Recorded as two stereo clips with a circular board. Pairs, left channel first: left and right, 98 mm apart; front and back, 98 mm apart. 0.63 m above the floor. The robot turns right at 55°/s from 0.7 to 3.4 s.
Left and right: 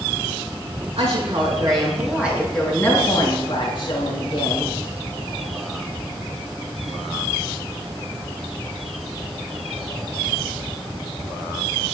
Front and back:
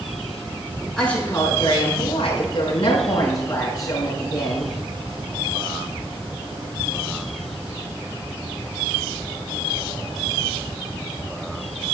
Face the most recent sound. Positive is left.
turn(degrees=50)